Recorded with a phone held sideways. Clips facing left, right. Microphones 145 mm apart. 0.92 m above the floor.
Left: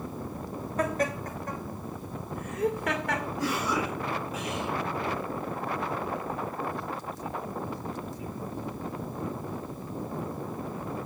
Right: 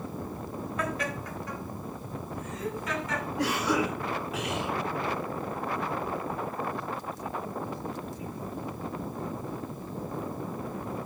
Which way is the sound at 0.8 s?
40° left (ahead or behind).